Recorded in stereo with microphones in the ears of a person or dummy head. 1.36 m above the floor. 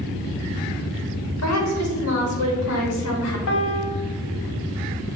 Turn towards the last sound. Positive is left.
turn(degrees=70)  # may be behind; listen again after turning